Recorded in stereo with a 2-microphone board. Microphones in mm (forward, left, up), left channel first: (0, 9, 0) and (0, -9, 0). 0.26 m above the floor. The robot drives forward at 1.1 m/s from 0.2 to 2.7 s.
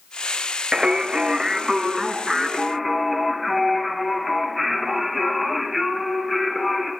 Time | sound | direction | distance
0.7 | singing | 35° right (ahead or behind) | 0.6 m